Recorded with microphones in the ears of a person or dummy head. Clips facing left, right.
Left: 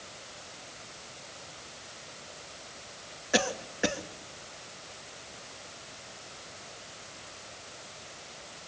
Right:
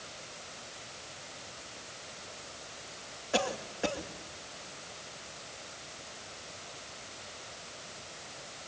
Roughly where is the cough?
Left.